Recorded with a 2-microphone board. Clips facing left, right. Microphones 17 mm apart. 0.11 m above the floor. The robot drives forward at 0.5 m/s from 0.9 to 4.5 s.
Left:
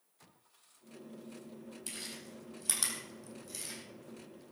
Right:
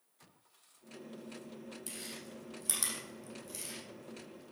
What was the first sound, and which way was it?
Chewing, 25° left (ahead or behind).